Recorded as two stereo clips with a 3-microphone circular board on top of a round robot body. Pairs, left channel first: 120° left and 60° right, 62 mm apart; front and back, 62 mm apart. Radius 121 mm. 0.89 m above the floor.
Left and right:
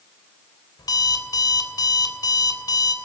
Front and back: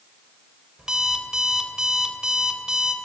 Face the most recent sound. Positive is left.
turn(degrees=100)